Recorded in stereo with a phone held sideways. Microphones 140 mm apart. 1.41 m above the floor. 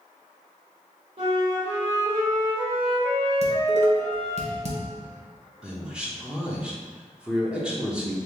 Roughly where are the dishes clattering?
Right.